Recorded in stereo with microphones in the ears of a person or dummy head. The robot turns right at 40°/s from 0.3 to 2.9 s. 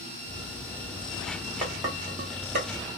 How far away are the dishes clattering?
About 0.8 m.